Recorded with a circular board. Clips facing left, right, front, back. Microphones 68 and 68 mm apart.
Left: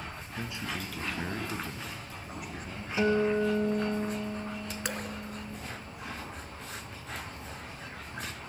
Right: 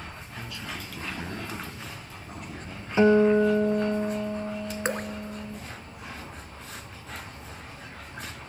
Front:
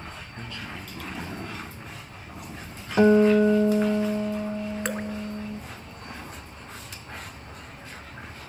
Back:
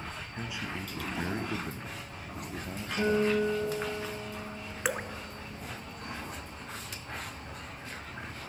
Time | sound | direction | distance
0.4 | a man speaking | 110° left | 1.3 m
3.0 | a guitar | 30° right | 1.0 m
4.8 | dripping | 100° right | 0.5 m